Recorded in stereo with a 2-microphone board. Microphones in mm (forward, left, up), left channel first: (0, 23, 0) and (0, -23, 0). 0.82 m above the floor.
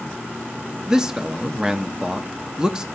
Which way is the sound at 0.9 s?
15° right (ahead or behind).